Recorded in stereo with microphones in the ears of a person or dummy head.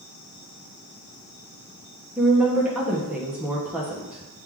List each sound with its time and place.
2.2 s a woman speaking: 5° right (ahead or behind), 0.8 m